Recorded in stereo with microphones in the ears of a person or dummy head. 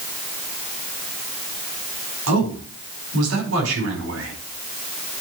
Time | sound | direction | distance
2.3 | a man speaking | 85° right | 5 m